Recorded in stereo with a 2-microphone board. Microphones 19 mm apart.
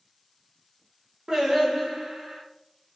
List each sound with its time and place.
1.3 s singing: 40° right (ahead or behind), 0.7 m